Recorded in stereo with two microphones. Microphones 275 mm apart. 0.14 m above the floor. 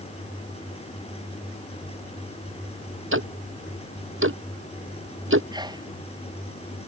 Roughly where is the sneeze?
Centre.